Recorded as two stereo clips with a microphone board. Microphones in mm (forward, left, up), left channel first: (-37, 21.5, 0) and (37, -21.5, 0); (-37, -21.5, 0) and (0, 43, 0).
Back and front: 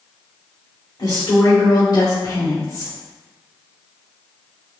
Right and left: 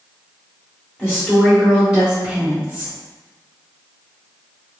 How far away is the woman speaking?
About 1.9 m.